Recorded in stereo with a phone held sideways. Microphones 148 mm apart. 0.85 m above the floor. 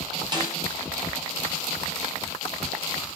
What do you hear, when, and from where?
0.3 s a snare drum: 30° right (ahead or behind), 4.5 m